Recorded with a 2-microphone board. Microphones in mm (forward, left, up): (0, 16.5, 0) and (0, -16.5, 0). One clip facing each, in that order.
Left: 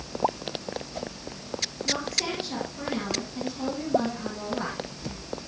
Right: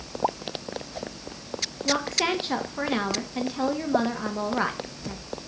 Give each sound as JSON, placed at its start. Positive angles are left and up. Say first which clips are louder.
{"t": 1.9, "sound": "a woman speaking", "louder": "right 5 dB", "side_deg": -60, "distance_m": 1.8}